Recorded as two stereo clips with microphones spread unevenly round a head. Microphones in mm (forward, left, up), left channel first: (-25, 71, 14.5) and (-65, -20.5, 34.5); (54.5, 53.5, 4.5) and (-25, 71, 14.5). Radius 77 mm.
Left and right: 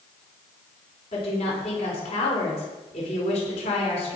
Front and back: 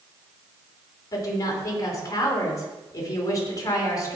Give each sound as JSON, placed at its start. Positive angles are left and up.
{"t": 1.1, "sound": "a woman speaking", "azimuth_deg": 30, "distance_m": 4.0}